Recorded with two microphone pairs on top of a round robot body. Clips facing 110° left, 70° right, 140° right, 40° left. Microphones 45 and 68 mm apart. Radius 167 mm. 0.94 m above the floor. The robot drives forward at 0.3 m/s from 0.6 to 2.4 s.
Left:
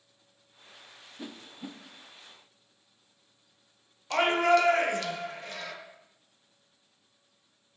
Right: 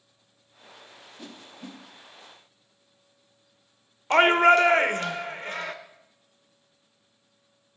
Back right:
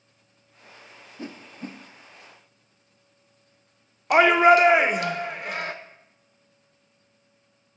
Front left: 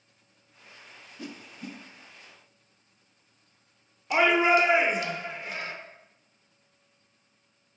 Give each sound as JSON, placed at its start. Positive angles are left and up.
{"t": 1.2, "sound": "a whoosh", "azimuth_deg": -175, "distance_m": 0.6}
{"t": 4.1, "sound": "a shout", "azimuth_deg": -120, "distance_m": 0.7}